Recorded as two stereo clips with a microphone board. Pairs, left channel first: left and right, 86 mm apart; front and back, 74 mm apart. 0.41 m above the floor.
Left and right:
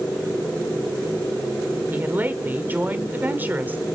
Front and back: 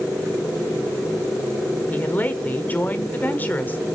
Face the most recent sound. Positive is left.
turn(degrees=-45)